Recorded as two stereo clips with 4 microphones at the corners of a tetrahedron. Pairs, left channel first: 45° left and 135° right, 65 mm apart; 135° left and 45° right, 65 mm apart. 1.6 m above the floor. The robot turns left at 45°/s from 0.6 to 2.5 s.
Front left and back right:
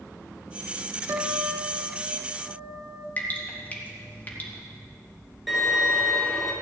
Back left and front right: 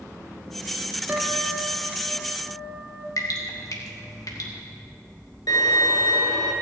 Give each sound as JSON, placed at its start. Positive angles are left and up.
{"t": 1.1, "sound": "a guitar", "azimuth_deg": -100, "distance_m": 1.6}
{"t": 3.2, "sound": "dripping", "azimuth_deg": 110, "distance_m": 2.0}
{"t": 5.5, "sound": "a violin", "azimuth_deg": 135, "distance_m": 2.5}